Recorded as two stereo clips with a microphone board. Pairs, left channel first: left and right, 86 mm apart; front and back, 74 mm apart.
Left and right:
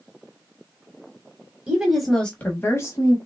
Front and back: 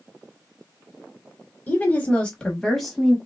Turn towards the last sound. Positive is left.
turn(degrees=90)